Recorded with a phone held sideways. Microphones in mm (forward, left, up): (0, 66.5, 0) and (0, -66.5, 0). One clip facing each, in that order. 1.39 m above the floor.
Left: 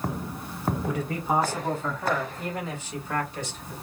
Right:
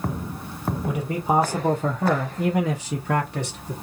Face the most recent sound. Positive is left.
turn(degrees=-60)  # may be behind; listen again after turning